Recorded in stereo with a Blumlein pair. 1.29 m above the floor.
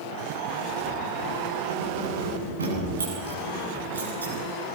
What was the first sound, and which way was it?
Keys jangling, 70° right.